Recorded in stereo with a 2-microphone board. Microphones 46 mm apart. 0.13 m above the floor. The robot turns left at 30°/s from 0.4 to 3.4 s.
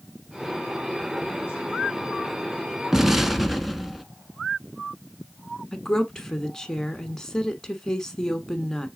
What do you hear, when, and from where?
2.9 s an explosion: 10° right (ahead or behind), 0.6 m; by 4.0 s 5° right (ahead or behind), 0.6 m
5.7 s a woman speaking: 10° left (ahead or behind), 1.1 m